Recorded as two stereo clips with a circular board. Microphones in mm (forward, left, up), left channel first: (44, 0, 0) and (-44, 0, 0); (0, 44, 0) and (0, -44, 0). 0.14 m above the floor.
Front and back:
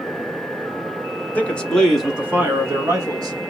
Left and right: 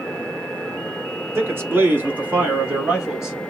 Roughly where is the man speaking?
Ahead right.